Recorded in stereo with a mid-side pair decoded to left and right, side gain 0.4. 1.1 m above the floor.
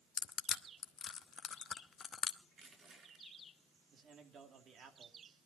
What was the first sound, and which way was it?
Crushing, 55° left.